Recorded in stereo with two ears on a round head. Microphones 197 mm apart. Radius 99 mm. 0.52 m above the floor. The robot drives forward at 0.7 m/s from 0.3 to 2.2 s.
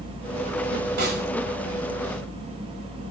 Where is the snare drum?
50° right (ahead or behind), 7 m.